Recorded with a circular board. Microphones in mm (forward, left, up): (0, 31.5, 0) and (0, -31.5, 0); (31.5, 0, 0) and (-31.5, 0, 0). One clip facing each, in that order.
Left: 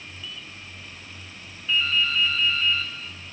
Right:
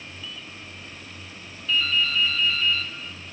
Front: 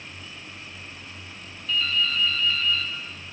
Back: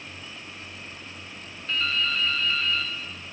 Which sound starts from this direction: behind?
Dripping, at 1.7 s.